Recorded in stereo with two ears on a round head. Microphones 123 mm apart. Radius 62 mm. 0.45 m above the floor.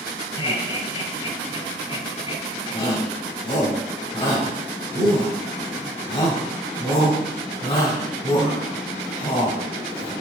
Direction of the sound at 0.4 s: 45° left (ahead or behind).